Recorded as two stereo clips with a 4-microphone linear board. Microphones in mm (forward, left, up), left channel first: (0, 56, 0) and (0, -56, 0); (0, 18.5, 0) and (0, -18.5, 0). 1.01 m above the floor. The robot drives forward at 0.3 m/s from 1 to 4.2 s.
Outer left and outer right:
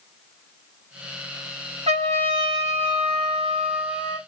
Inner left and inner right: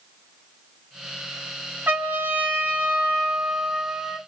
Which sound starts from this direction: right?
A trumpet, at 1.9 s.